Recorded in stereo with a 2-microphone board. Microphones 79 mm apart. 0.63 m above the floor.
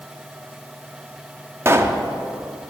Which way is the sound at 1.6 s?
30° right (ahead or behind).